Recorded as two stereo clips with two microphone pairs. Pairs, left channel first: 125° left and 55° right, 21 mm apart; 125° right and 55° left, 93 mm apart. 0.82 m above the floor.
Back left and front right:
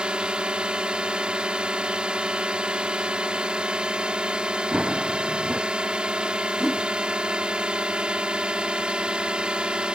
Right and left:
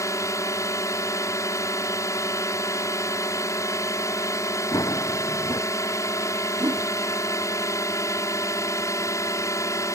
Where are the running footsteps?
75° right.